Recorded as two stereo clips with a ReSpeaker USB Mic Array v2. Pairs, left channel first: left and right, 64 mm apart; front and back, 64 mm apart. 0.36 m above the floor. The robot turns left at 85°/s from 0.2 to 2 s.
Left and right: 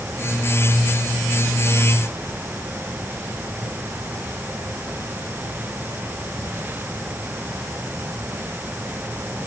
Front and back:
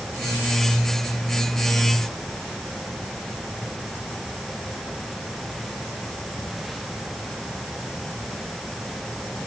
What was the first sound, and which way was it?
Only background noise.